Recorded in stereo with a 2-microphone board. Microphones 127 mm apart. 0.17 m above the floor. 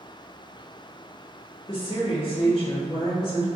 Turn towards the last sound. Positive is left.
turn(degrees=50)  # may be behind; listen again after turning